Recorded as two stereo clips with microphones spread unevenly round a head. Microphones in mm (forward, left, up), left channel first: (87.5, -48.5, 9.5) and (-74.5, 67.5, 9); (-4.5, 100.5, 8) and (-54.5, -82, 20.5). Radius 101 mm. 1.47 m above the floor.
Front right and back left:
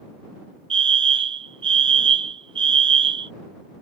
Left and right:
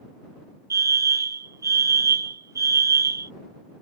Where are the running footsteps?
No running footsteps in this recording.